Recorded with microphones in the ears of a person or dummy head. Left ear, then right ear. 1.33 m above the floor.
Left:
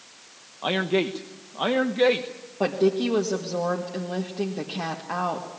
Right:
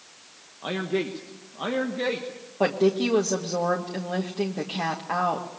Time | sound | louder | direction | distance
0.6 | a man speaking | left 4 dB | 35° left (ahead or behind) | 1.2 m
2.6 | a woman speaking | even | 5° right (ahead or behind) | 1.6 m